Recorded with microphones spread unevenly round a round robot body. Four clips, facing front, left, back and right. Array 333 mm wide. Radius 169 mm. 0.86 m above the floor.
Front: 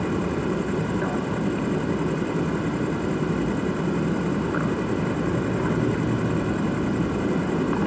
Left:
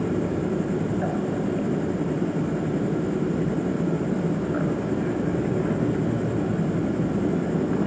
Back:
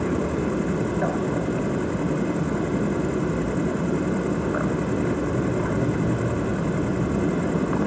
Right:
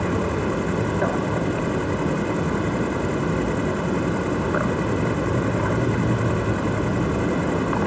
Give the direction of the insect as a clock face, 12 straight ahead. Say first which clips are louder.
Right 2 dB, back 1 dB; 3 o'clock.